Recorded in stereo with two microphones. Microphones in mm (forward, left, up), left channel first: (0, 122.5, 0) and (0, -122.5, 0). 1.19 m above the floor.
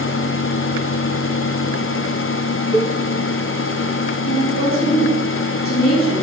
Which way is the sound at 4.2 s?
60° left (ahead or behind).